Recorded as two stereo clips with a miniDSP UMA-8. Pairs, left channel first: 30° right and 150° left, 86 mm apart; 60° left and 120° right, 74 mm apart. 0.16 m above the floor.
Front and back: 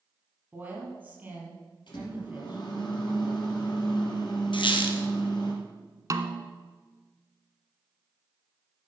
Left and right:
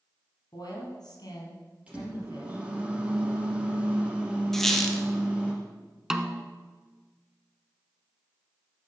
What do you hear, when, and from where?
0.5 s a woman speaking: 85° left, 5 m
1.9 s a microwave: 45° right, 3.5 m
4.5 s a squeak: 25° right, 1.3 m
6.1 s a snare drum: 160° left, 0.9 m